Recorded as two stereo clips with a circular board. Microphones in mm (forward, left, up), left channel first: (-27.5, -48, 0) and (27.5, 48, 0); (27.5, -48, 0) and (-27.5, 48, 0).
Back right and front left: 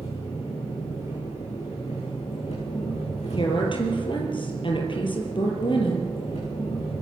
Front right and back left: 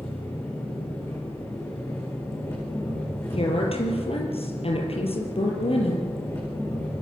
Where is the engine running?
125° right, 9 m.